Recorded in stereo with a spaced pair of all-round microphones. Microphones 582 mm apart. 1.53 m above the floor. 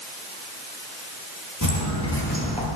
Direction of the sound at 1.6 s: 35° left (ahead or behind).